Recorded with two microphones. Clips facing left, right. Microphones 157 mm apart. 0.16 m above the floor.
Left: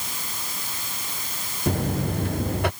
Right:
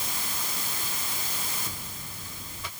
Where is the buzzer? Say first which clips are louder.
Left 19 dB; 65° left (ahead or behind).